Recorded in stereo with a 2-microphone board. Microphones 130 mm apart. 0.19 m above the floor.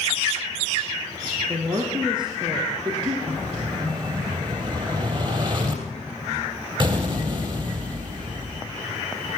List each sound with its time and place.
1.5 s a woman speaking: 40° right (ahead or behind), 2 m
3.3 s an explosion: 40° right (ahead or behind), 3 m